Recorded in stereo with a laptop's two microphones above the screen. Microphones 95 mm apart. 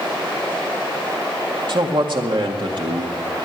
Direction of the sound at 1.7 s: 60° right (ahead or behind).